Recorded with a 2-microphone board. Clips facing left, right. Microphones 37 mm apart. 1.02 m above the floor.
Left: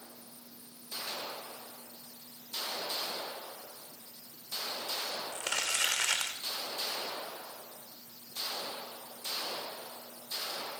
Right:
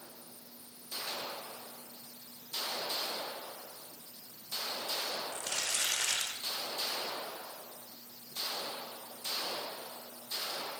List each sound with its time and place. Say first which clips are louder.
5.3 s crumpling: left 3 dB; 75° left (ahead or behind), 4 m